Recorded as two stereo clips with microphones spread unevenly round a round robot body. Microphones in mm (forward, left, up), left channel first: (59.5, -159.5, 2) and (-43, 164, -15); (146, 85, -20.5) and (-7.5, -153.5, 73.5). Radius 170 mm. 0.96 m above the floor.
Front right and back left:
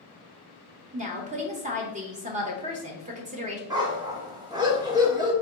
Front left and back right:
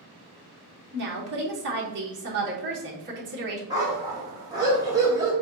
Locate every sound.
0.9 s a woman speaking: 175° left, 0.6 m
3.7 s a dog barking: 175° right, 0.5 m